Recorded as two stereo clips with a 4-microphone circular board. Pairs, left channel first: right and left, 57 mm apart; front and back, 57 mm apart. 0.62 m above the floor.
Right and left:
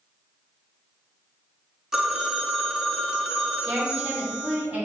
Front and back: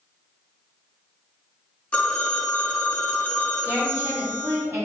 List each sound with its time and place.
1.9 s a phone ringing: 20° left, 0.5 m
3.6 s a woman speaking: 145° left, 1.6 m